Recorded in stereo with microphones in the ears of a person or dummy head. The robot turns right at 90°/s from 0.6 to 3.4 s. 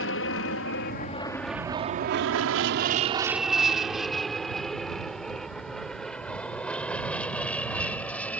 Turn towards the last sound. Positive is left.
turn(degrees=10)  # may be behind; listen again after turning